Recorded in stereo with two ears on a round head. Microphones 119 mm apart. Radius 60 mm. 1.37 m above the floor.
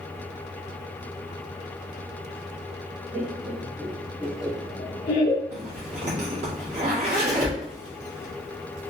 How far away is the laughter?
About 1.5 m.